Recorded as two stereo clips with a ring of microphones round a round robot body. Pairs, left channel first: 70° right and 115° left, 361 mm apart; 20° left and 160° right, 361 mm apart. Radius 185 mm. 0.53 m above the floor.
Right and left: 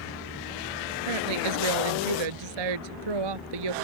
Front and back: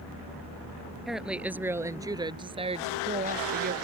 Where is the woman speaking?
115° left; by 3.7 s 135° left.